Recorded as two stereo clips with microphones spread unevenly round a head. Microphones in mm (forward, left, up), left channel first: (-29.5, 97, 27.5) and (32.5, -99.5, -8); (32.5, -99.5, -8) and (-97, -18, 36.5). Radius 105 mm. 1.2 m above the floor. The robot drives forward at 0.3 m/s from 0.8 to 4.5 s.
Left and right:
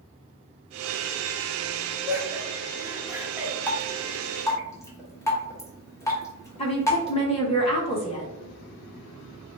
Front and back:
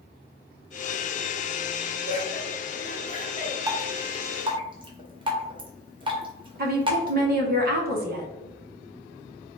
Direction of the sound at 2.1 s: Straight ahead.